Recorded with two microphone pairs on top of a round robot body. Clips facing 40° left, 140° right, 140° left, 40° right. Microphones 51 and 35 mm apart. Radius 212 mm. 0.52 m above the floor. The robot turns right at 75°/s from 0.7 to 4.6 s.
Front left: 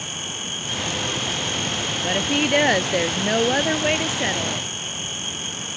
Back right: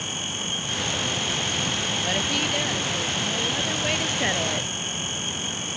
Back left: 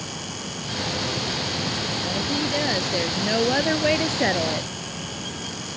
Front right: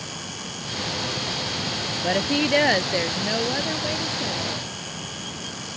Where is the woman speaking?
40° right; by 4.7 s 150° left.